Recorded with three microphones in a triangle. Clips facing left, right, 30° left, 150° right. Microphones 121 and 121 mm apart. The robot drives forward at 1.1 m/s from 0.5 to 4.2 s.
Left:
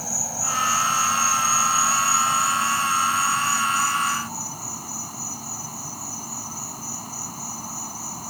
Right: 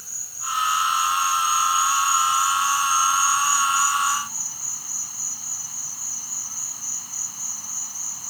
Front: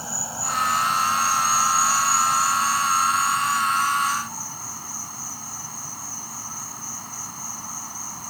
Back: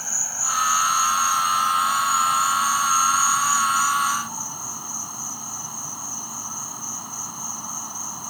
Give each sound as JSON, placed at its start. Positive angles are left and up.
{"t": 0.0, "sound": "an insect", "azimuth_deg": 100}